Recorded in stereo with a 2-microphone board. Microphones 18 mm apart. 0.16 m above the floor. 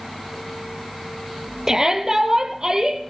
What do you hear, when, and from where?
1.7 s a shout: 30° right (ahead or behind), 4.5 m; by 3.0 s 35° right (ahead or behind), 6 m